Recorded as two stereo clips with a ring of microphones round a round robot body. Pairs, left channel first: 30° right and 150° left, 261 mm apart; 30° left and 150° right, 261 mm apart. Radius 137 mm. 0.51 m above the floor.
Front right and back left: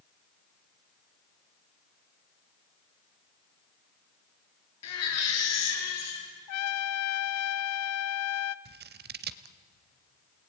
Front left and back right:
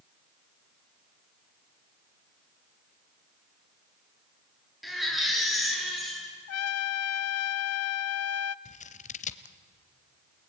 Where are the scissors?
95° left, 0.9 m.